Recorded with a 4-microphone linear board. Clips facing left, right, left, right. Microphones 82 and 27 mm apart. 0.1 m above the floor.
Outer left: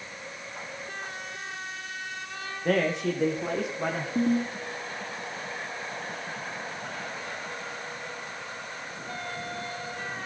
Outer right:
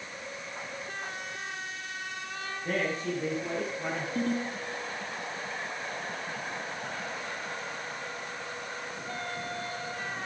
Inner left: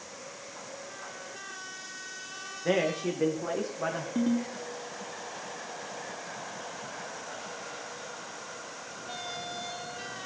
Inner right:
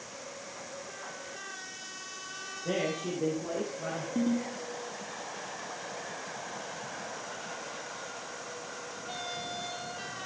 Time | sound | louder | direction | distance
2.6 | a man speaking | outer left 6 dB, inner left 5 dB | 70° left (ahead or behind) | 6.5 m
4.2 | a ringtone | outer left 6 dB, inner left 1 dB | 20° left (ahead or behind) | 7.5 m